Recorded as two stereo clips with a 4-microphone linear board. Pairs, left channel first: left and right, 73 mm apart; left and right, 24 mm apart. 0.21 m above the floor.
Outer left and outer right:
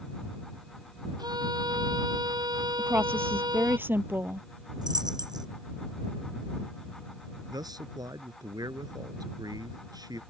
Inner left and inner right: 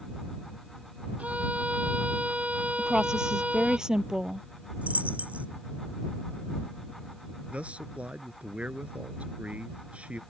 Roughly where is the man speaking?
Right.